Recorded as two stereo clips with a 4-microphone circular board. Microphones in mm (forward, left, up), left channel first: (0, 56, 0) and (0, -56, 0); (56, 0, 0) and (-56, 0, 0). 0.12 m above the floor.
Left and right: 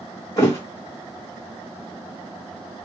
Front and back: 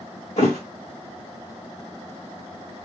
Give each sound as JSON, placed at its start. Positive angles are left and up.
{"t": 0.4, "sound": "a thud", "azimuth_deg": 30, "distance_m": 1.1}